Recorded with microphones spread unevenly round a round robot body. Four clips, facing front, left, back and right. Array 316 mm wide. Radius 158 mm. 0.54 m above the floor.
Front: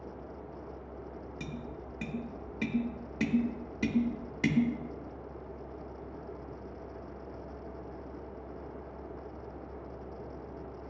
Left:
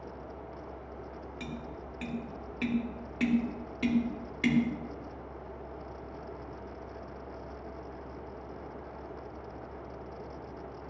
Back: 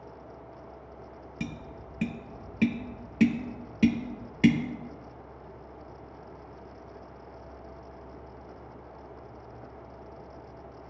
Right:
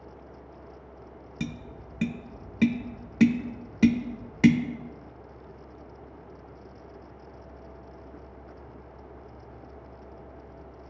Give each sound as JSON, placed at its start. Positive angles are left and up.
{"t": 1.4, "sound": "tapping", "azimuth_deg": -130, "distance_m": 0.6}